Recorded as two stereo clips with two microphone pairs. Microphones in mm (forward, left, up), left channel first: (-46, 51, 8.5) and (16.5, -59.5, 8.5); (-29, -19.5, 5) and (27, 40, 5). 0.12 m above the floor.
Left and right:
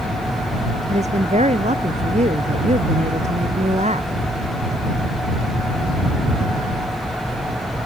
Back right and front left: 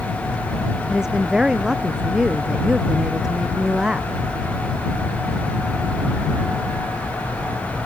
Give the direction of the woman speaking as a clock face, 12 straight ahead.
1 o'clock.